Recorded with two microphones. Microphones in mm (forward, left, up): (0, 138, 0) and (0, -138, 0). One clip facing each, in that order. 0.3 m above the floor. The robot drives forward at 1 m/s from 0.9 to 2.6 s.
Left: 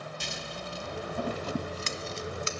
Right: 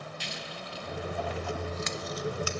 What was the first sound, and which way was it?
Scissors, 55° left (ahead or behind).